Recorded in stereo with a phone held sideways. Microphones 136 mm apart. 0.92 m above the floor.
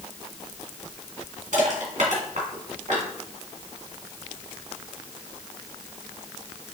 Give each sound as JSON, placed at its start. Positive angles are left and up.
{"t": 1.5, "sound": "crushing", "side_deg": -70, "distance_m": 2.0}